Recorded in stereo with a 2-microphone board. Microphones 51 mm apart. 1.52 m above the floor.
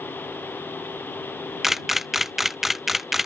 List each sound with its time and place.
1.6 s a camera shutter: 5° right (ahead or behind)